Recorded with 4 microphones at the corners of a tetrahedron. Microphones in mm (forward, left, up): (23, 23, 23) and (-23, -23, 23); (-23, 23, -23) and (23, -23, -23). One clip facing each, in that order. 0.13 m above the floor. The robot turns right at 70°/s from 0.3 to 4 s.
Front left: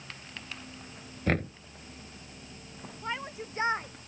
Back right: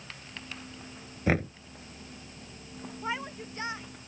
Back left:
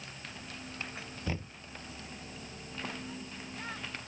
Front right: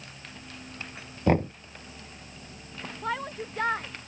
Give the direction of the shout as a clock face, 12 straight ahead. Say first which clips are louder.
Back right 1 dB, front right 11 dB; 2 o'clock.